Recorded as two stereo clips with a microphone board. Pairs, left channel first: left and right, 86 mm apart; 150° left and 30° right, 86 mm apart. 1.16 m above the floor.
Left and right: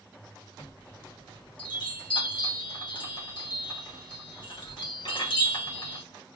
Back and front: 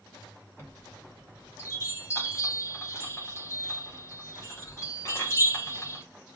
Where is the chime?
95° left, 1.3 m.